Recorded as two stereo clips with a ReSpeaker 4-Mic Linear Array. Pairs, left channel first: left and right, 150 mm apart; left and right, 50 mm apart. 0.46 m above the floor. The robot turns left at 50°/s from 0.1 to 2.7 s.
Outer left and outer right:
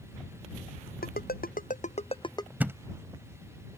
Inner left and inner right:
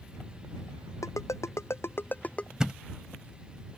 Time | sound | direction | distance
1.0 | a ringtone | 85° left | ?
2.6 | a thud | 10° right (ahead or behind) | ?